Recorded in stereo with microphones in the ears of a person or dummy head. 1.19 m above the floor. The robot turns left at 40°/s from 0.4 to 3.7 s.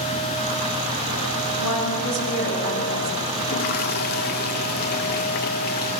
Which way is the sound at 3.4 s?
40° left (ahead or behind).